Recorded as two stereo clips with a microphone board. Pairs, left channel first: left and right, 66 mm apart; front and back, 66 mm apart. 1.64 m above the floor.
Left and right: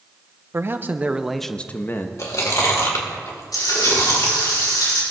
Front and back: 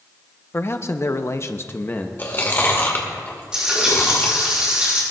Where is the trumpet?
I don't hear a trumpet.